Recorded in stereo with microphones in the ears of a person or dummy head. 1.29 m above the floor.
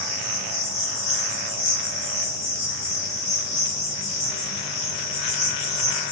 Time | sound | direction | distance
0.0 | an insect | 50° left (ahead or behind) | 1.1 m